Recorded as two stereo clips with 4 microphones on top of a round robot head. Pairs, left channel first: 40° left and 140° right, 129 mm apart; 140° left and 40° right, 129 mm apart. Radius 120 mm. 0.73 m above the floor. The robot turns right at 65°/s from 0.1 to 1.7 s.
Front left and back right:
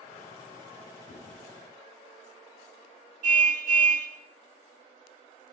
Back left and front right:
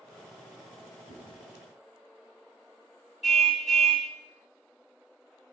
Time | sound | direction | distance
1.1 | chewing | 75° left | 3 m
3.2 | a car horn | 130° right | 3 m